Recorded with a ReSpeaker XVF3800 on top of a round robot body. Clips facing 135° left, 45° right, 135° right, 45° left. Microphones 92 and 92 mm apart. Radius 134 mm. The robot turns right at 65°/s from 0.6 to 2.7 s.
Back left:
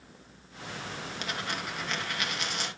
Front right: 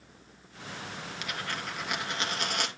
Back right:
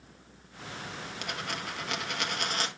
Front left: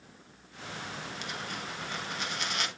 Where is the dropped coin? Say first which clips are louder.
Back left 1 dB, back right 5 dB; 170° right, 1.6 m; by 2.7 s 75° right, 1.6 m.